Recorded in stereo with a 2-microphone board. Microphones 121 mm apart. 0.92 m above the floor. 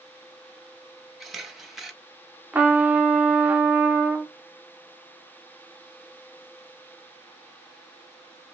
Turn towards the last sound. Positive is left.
turn(degrees=-15)  # may be behind; listen again after turning